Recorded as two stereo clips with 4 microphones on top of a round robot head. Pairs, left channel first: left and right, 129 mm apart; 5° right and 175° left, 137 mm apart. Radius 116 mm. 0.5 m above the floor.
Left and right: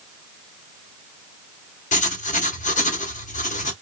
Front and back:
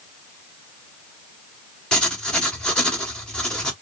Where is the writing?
80° left, 1.4 m.